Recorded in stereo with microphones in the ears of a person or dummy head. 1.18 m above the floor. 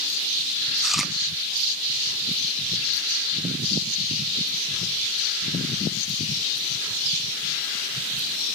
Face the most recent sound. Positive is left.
turn(degrees=0)  # may be behind; listen again after turning